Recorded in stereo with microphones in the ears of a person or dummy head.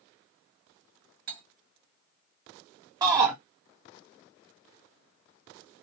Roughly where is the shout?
Right.